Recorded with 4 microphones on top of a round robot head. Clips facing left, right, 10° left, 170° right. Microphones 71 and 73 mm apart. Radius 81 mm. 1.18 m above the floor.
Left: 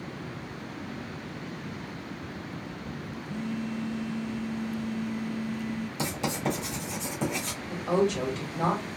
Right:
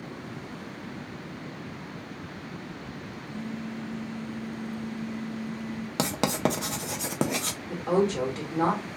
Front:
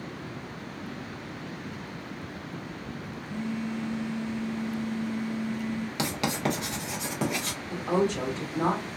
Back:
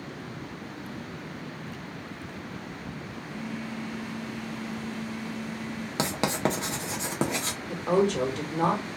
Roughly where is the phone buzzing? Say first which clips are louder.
Left 3 dB, front 4 dB; left.